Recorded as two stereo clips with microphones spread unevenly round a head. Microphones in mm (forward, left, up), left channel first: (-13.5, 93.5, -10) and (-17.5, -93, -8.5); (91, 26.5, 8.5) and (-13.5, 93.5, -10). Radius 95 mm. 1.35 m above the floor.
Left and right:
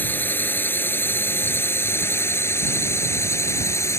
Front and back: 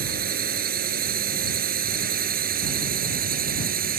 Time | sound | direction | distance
0.0 | a drone | 170° left | ?